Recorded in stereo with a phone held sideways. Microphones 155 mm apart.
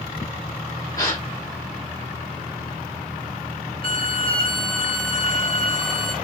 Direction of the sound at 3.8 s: 35° left (ahead or behind).